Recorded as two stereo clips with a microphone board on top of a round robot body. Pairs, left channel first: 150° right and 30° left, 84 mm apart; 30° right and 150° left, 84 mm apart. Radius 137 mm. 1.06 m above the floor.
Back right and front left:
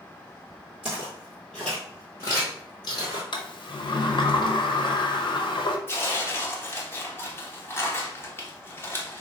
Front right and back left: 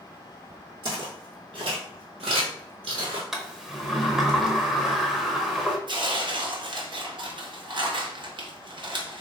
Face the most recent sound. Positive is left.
turn(degrees=150)